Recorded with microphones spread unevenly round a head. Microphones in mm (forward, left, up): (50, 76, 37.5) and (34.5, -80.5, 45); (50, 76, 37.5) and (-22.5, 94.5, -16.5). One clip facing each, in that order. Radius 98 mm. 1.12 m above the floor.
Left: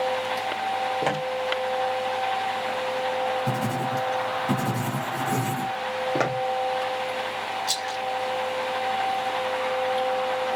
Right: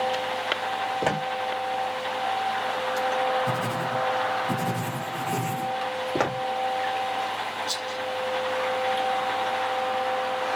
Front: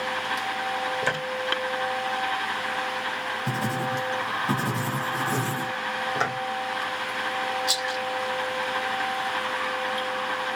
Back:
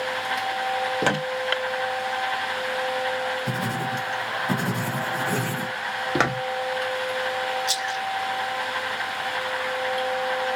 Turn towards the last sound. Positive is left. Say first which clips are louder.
# left 2 dB, back 1 dB
turn(degrees=90)